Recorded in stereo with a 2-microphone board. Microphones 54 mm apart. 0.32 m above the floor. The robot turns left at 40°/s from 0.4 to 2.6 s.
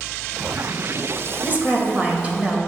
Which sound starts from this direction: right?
A woman speaking, at 1.4 s.